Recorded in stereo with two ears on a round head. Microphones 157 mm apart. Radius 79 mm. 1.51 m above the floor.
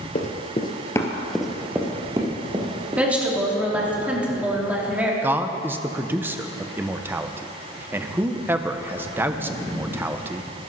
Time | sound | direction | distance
0.1 | running footsteps | 40° left (ahead or behind) | 1.9 m
3.0 | a woman speaking | 10° right (ahead or behind) | 3 m
5.2 | a man speaking | 10° right (ahead or behind) | 0.9 m